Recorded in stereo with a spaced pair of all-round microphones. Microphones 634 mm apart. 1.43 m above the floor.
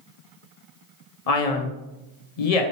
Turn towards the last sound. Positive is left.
turn(degrees=70)  # may be behind; listen again after turning